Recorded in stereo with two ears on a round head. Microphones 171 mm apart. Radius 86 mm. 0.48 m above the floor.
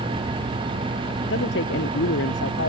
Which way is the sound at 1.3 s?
75° left (ahead or behind).